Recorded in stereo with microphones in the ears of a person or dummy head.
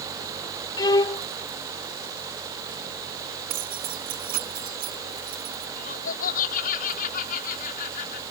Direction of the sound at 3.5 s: 50° right (ahead or behind).